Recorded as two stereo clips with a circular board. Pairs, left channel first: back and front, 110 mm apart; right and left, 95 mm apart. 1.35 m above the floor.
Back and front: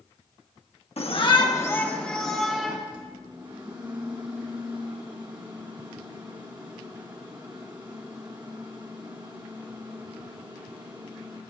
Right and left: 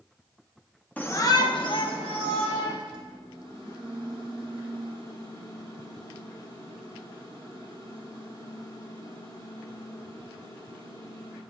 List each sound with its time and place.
1.0 s a shout: 165° right, 1.0 m; by 2.8 s 85° right, 2 m
2.9 s a microwave: 45° right, 2.5 m